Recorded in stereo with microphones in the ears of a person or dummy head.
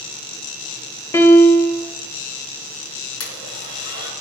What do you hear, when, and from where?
1.1 s a piano: 20° left (ahead or behind), 2 m
3.2 s a blender: 75° left (ahead or behind), 7 m